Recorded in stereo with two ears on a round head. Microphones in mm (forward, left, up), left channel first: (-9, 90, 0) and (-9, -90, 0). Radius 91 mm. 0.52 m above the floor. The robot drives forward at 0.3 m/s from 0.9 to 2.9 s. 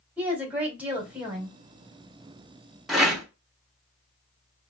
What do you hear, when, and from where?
0.2 s a woman speaking: 5° right (ahead or behind), 1.9 m
2.9 s a rattle: centre (ahead or behind), 1.3 m